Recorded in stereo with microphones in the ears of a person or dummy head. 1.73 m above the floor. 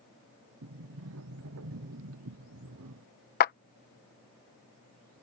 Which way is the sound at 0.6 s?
70° right (ahead or behind).